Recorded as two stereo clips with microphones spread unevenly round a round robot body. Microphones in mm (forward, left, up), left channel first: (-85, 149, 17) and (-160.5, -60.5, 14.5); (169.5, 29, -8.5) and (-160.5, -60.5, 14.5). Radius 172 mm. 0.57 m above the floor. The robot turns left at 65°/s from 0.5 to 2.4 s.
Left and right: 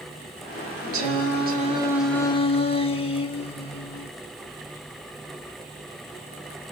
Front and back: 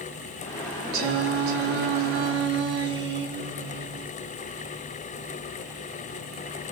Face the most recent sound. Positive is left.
turn(degrees=135)